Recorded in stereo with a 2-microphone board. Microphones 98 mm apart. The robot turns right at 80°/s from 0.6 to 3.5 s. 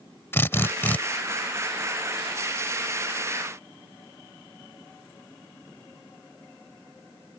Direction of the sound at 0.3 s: 25° left (ahead or behind).